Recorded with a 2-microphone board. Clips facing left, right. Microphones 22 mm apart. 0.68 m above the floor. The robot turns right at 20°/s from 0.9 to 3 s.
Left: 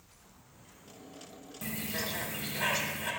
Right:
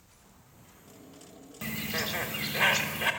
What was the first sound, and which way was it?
A bird, 30° right (ahead or behind).